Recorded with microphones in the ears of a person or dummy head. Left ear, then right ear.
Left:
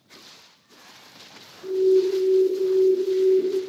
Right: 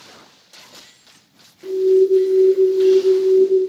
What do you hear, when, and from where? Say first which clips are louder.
1.6 s an alarm: right 5 dB; 50° right (ahead or behind), 0.9 m